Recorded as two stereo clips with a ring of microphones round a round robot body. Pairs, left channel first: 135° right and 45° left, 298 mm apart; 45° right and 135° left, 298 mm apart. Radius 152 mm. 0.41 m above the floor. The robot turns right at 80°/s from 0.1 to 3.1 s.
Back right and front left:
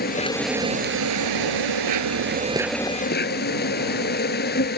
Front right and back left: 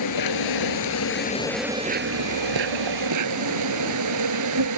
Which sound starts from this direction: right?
An insect, at 0.0 s.